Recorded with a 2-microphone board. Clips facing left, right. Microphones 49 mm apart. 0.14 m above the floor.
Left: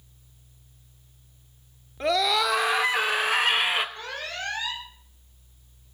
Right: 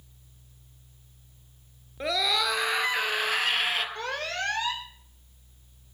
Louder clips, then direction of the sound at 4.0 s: Right 3 dB; 50° right (ahead or behind).